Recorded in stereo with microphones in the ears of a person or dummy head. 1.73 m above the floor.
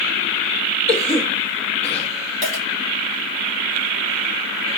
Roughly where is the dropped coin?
Left.